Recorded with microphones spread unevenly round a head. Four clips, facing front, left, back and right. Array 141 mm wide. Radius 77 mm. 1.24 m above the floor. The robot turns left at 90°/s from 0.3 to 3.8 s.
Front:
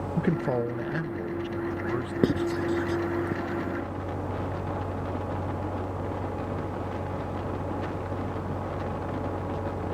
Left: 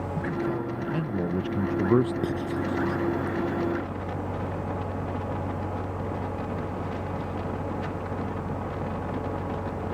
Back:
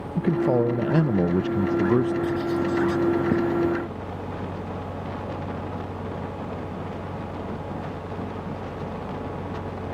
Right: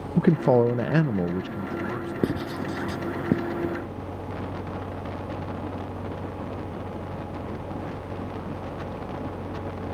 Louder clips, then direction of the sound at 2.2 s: Even, back 1 dB; 25° right.